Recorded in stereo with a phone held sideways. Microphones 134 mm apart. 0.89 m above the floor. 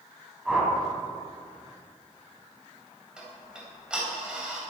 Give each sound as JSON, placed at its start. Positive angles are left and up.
{"t": 0.5, "sound": "a whoosh", "side_deg": 0, "distance_m": 3.5}
{"t": 3.2, "sound": "ticking", "side_deg": -5, "distance_m": 3.5}